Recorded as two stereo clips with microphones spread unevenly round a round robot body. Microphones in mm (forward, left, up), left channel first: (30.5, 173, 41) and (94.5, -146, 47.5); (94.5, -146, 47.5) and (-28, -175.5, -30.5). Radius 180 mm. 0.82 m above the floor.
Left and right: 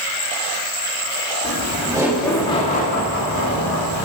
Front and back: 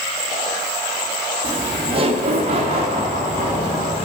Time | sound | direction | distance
1.4 | laughter | 135° right | 1.4 m